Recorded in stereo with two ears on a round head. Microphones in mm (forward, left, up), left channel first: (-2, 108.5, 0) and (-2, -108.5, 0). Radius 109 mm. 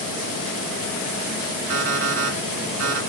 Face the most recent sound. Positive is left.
turn(degrees=-55)  # may be behind; listen again after turning